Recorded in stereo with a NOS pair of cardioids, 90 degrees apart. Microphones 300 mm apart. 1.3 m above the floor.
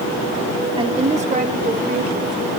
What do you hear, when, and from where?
0.8 s a woman speaking: 15° right, 3.5 m; by 2.5 s 35° right, 5.5 m